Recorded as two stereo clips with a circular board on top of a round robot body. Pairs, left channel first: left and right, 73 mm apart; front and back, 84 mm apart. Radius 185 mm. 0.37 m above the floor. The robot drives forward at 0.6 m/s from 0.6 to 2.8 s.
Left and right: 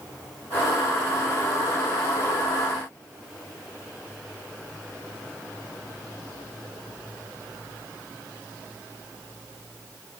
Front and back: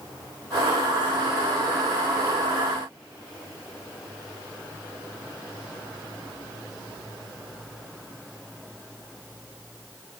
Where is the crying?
No crying in this recording.